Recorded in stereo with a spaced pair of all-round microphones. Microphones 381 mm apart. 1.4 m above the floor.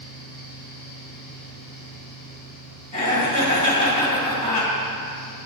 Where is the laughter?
85° right, 1.5 m.